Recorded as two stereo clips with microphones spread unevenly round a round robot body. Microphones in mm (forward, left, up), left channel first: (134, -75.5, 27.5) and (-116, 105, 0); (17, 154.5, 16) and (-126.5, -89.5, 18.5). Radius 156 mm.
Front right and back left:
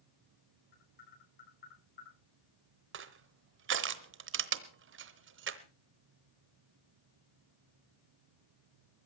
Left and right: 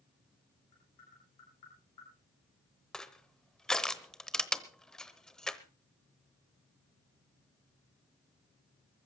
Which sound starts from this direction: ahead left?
Tapping, at 0.7 s.